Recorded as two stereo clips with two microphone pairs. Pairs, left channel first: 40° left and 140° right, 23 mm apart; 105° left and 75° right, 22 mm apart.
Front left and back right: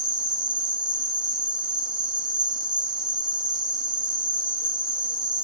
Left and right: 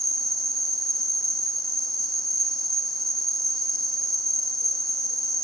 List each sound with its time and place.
0.0 s an insect: 175° left, 0.9 m